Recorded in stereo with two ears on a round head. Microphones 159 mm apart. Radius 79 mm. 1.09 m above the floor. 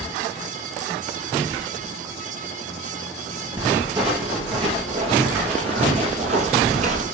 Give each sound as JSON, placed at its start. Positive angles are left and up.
{"t": 3.6, "sound": "footsteps", "side_deg": -30, "distance_m": 3.5}